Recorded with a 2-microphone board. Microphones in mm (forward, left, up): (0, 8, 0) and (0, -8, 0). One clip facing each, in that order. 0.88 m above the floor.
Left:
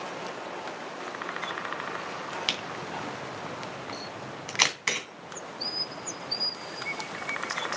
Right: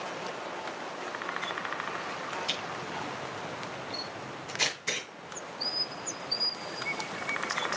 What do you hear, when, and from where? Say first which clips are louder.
2.5 s a camera shutter: left 2 dB; 80° left, 3 m